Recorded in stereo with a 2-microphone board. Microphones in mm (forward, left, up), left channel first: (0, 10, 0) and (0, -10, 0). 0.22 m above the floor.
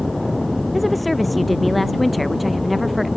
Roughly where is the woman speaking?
Centre.